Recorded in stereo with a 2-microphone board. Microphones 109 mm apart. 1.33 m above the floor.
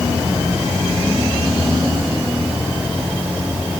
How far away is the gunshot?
I don't hear a gunshot.